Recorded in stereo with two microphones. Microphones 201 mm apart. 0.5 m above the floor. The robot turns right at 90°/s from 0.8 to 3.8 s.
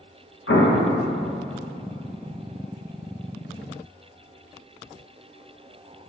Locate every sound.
0.5 s an explosion: 80° left, 0.6 m; by 0.9 s 85° left, 0.6 m